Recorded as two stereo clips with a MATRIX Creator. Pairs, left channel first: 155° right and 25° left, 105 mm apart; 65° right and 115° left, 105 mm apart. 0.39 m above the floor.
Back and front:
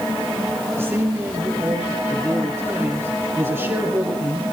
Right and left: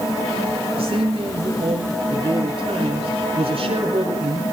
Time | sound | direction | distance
0.8 | a man speaking | 85° left | 6 m